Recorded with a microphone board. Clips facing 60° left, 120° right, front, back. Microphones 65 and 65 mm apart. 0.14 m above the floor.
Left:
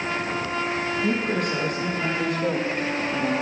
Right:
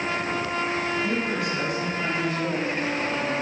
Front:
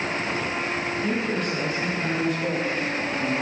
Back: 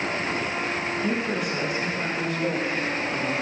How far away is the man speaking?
About 4 m.